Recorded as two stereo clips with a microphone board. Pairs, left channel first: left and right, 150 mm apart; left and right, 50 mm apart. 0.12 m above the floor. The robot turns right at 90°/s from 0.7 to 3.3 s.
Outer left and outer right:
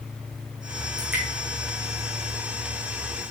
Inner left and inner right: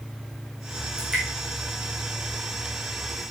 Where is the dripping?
25° right (ahead or behind), 2.5 m; by 1.2 s centre (ahead or behind), 2.5 m.